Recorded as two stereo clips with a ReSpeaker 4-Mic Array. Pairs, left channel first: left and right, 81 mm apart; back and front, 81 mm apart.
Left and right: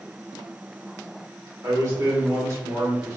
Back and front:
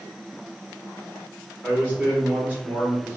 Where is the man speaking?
55° right, 1.2 m.